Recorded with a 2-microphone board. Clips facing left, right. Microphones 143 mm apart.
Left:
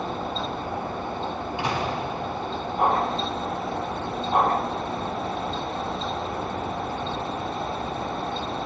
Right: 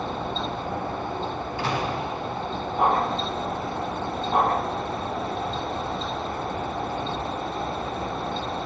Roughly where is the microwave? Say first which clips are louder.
Even; centre.